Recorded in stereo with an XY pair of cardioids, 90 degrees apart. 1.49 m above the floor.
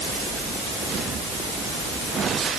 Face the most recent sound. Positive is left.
No sound to turn to.